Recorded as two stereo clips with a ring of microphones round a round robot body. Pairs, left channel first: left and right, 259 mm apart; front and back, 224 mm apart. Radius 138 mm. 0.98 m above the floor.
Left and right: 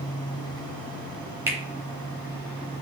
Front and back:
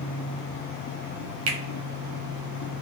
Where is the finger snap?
170° right, 0.9 m.